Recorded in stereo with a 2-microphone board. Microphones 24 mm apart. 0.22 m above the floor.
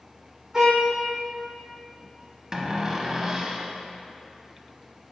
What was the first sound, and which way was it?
A violin, 30° right (ahead or behind).